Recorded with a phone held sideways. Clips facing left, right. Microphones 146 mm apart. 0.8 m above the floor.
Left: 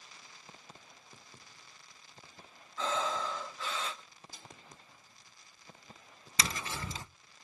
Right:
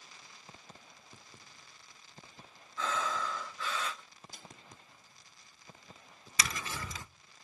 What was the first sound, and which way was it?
Breathing, 25° left (ahead or behind).